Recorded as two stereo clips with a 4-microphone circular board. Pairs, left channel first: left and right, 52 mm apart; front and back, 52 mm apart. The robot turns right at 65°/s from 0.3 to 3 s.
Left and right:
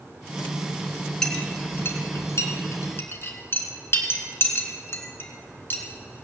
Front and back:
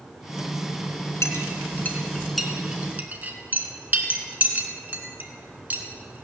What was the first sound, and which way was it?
A clink, 15° left.